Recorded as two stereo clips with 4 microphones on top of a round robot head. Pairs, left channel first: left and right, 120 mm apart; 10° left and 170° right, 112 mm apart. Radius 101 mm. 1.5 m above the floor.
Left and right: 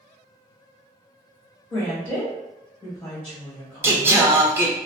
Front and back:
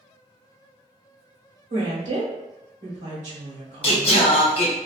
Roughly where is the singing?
Ahead.